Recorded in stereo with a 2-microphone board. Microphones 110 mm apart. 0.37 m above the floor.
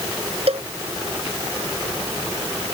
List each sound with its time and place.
0.5 s a cowbell: 65° right (ahead or behind)